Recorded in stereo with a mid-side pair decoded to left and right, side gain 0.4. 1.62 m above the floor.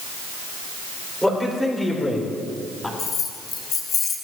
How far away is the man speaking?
About 6 m.